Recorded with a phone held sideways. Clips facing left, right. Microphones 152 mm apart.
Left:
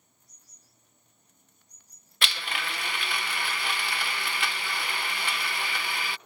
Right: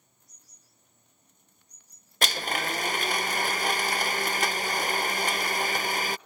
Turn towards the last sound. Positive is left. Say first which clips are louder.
# right 5 dB
turn(degrees=-45)  # may be behind; listen again after turning